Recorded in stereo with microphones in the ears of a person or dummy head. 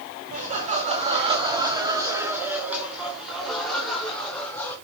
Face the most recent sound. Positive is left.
turn(degrees=15)  # may be behind; listen again after turning